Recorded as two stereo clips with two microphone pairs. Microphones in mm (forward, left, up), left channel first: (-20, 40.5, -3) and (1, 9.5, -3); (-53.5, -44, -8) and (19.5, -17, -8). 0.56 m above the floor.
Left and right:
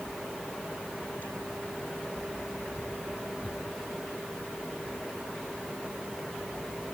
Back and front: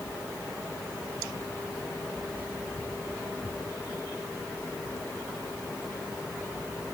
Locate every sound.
Only background noise.